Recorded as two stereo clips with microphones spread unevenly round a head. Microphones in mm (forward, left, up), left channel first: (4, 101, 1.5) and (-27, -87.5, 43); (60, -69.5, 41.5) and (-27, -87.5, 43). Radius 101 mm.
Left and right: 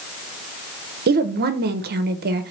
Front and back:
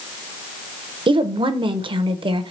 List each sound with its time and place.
1.1 s a woman speaking: 145° right, 0.7 m